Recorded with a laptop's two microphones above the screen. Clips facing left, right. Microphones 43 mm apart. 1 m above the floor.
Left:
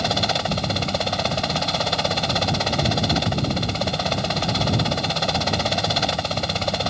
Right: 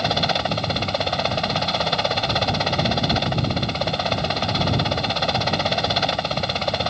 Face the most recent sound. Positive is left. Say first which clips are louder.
# right 1 dB
turn(degrees=-10)  # may be behind; listen again after turning